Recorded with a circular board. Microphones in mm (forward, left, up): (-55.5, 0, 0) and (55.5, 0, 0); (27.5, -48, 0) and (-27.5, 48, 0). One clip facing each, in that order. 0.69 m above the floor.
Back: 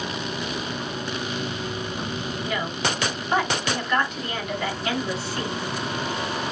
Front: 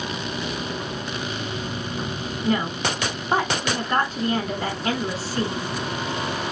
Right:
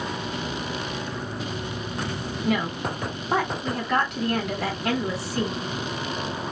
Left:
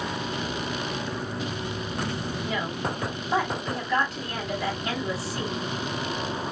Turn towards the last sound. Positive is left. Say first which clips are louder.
# front 5 dB, right 6 dB
turn(degrees=-50)